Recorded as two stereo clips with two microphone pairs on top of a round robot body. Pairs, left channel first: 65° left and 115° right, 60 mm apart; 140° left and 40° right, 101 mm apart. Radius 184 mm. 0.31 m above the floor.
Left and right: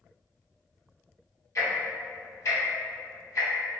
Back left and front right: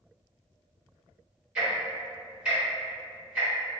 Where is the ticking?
40° left, 2.0 m.